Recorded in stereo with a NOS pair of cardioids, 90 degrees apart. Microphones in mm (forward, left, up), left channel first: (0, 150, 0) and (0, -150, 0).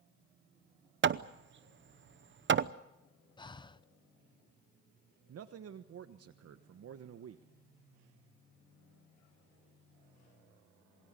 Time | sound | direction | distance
1.0 | hammering | 40° right | 0.8 m
3.4 | breathing | 15° left | 0.7 m
5.3 | a man speaking | 55° right | 1.2 m